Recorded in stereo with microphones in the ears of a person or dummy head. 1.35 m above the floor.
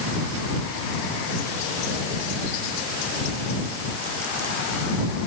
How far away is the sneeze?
I don't hear a sneeze.